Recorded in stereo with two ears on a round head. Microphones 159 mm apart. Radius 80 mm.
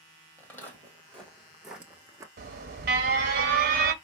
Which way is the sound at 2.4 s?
55° right (ahead or behind).